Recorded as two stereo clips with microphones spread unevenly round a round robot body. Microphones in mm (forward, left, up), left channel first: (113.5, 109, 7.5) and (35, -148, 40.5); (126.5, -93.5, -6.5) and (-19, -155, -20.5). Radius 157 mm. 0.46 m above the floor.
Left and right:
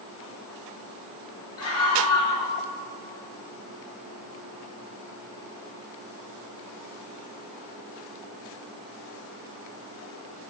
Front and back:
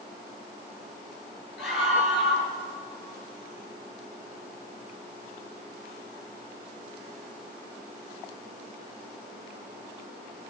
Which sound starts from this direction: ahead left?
A scream, at 1.6 s.